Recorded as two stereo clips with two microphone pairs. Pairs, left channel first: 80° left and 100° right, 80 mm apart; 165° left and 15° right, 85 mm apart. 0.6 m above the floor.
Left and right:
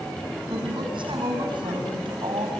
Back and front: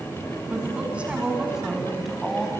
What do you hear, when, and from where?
0.5 s a woman speaking: 85° right, 6 m; by 2.5 s 105° right, 5 m